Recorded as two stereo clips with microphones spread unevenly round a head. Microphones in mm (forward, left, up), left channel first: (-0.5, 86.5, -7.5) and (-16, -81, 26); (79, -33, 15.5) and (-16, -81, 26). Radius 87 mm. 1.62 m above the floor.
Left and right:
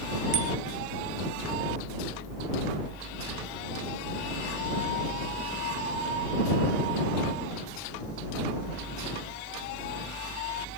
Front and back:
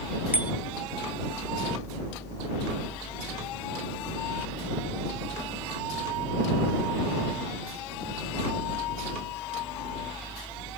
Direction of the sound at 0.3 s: 80° right.